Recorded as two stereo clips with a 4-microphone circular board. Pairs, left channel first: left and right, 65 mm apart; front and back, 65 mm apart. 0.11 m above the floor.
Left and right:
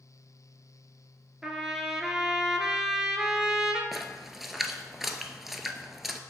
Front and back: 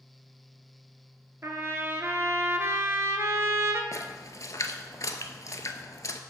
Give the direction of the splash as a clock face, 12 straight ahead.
12 o'clock.